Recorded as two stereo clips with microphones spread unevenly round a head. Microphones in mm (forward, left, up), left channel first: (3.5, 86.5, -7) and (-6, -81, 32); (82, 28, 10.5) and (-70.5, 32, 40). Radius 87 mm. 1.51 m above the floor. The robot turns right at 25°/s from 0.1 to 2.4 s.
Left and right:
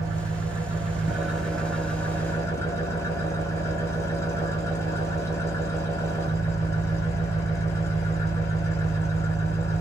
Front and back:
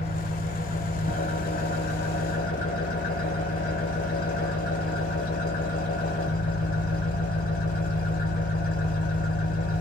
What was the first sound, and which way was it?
An engine running, 55° right.